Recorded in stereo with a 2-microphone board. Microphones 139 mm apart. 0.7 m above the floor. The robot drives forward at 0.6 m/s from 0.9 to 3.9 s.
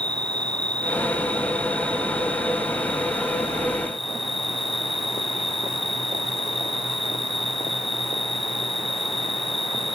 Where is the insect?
30° right (ahead or behind); by 9.9 s 40° right (ahead or behind).